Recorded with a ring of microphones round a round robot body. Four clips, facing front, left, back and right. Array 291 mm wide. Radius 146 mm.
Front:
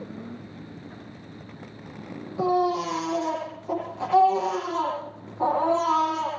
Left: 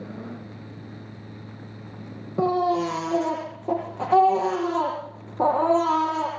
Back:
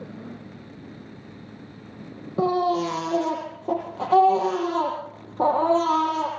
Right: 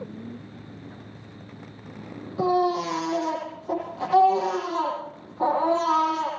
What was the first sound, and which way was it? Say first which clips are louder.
A baby crying: left 1 dB, back 1 dB; 135° left.